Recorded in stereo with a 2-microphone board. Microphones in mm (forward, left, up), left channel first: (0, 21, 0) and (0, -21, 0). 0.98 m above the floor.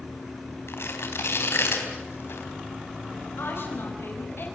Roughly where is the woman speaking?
Left.